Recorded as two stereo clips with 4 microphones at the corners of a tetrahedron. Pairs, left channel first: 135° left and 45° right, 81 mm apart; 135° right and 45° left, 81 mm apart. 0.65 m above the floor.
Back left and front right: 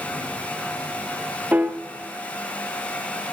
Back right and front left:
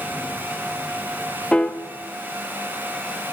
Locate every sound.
1.5 s a piano: 75° right, 0.6 m